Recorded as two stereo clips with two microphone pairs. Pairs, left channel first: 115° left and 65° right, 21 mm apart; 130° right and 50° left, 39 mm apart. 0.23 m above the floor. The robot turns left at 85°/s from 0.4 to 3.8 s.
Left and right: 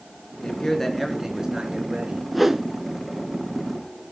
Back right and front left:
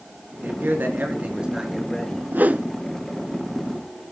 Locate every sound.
0.4 s a man speaking: 75° left, 3.5 m; by 2.2 s 80° right, 3.5 m
2.3 s a whoosh: 25° left, 0.8 m; by 2.7 s 5° right, 0.8 m